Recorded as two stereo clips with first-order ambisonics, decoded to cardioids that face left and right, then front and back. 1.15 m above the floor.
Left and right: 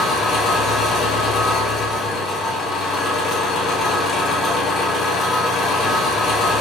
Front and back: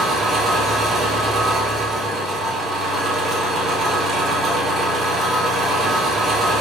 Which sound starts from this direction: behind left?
An engine running, at 0.0 s.